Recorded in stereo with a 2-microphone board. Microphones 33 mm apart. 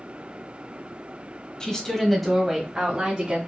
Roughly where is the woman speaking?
Left.